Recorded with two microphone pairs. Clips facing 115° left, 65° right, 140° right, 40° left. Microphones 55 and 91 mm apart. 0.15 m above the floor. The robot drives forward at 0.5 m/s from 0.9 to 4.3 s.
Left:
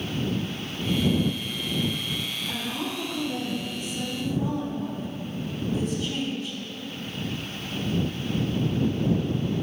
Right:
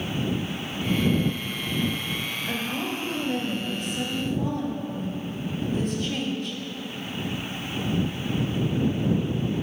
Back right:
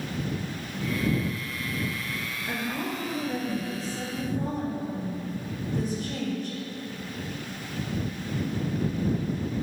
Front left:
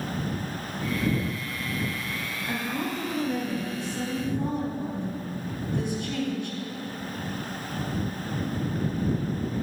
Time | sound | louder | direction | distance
2.5 | a woman speaking | right 3 dB, front left 1 dB | 80° right | 2.5 m